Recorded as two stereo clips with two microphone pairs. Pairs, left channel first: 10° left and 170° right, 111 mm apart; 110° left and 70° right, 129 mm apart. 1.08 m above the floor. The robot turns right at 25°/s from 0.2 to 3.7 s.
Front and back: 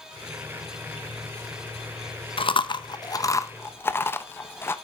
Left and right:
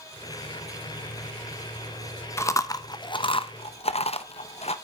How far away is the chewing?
About 0.8 m.